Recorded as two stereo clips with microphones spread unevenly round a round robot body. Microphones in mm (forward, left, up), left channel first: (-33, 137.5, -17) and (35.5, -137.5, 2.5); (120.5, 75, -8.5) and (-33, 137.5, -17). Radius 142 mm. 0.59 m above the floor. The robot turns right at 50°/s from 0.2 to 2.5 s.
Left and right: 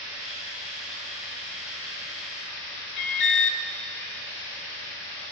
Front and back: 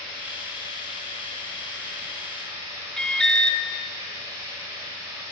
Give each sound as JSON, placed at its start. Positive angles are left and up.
{"t": 0.0, "sound": "running water", "azimuth_deg": -20, "distance_m": 4.5}
{"t": 3.0, "sound": "an alarm", "azimuth_deg": 65, "distance_m": 0.5}